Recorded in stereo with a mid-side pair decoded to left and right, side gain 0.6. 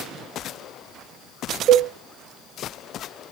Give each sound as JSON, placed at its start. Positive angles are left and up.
{"t": 1.7, "sound": "a cowbell", "azimuth_deg": -55, "distance_m": 1.9}